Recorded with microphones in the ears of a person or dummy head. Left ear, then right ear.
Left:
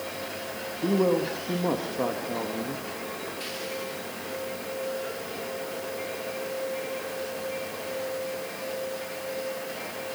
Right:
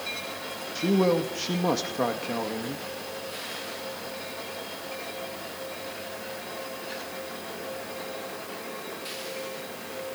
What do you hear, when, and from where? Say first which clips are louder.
0.8 s a man speaking: right 1 dB; 65° right (ahead or behind), 2 m